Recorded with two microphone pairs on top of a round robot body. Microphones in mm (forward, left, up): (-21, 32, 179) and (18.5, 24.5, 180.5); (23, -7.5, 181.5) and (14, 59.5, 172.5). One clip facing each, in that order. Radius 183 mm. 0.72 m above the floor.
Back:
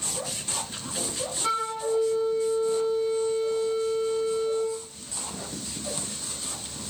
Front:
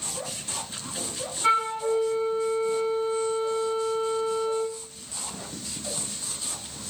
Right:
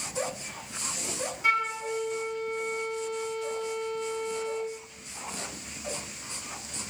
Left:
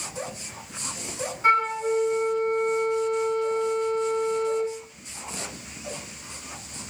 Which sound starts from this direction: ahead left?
A flute, at 1.4 s.